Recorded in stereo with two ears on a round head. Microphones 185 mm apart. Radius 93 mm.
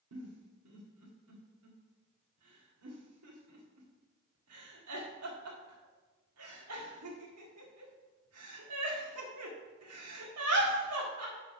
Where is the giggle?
85° right, 1.9 m.